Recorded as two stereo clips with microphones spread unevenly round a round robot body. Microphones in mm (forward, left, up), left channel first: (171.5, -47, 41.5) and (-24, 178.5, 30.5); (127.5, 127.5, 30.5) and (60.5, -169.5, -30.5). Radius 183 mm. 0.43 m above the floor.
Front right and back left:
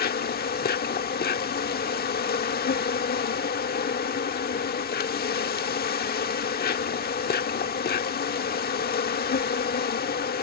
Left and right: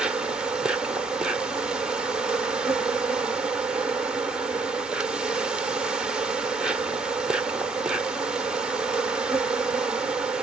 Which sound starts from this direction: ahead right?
An insect, at 0.0 s.